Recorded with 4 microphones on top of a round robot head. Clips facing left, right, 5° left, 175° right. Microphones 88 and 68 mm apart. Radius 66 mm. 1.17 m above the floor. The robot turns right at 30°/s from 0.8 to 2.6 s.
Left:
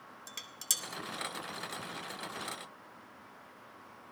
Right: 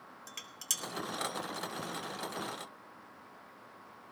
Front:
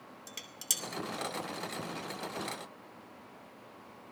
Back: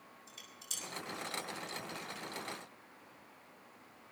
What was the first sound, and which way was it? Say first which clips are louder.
Dishes clattering: even, front 7 dB; 10° left.